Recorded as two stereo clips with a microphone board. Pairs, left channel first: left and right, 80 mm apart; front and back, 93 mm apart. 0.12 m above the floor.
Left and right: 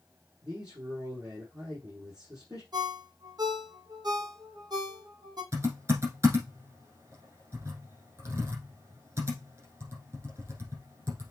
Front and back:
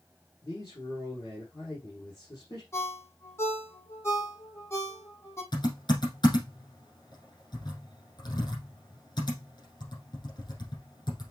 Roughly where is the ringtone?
Ahead right.